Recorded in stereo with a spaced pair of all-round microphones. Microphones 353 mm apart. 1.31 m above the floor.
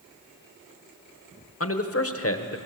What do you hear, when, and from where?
1.6 s a man speaking: 40° left (ahead or behind), 1.2 m